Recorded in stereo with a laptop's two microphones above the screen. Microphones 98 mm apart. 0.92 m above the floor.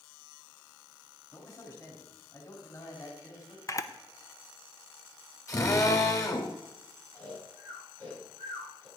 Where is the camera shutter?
35° left (ahead or behind), 0.6 m.